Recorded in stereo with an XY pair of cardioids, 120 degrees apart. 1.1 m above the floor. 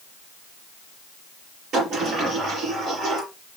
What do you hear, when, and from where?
1.7 s a sliding door: 65° right, 5 m